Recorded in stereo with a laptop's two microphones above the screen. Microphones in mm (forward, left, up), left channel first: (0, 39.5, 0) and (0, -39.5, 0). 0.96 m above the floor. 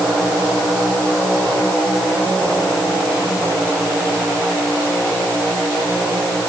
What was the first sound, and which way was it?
Only background noise.